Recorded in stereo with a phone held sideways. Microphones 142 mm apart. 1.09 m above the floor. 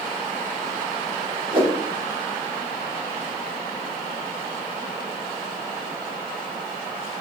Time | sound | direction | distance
1.5 | a whoosh | 35° right (ahead or behind) | 1.4 m